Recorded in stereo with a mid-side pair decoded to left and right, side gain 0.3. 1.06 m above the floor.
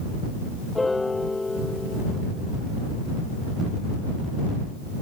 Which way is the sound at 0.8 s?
25° left.